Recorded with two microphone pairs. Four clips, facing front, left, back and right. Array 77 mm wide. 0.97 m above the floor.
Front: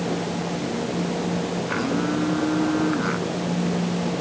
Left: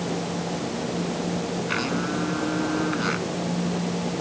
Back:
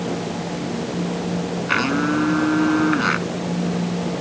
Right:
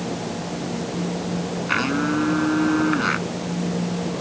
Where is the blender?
165° right.